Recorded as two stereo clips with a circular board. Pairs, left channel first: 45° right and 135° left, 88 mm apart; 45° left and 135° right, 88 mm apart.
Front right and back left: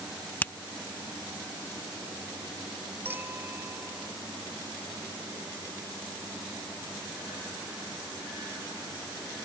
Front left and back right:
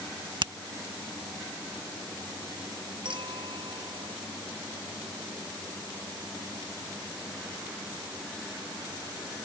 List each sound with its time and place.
0.4 s a finger snap: 115° right
3.0 s a clink: 160° right